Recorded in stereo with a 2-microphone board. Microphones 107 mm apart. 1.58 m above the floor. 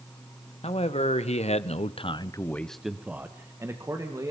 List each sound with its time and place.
0.6 s a man speaking: 70° left (ahead or behind), 2 m; by 4.3 s 30° right (ahead or behind), 2.5 m